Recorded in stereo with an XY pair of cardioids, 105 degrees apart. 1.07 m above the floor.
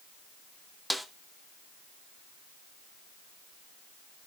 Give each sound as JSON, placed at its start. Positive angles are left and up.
{"t": 0.9, "sound": "a snare drum", "azimuth_deg": -5, "distance_m": 0.9}